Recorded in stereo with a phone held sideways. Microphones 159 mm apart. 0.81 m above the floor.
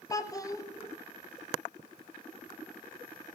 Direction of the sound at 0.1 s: 20° left (ahead or behind).